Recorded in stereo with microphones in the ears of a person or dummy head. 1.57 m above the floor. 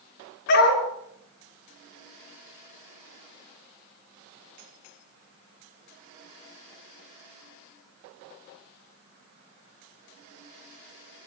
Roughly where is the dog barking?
Left.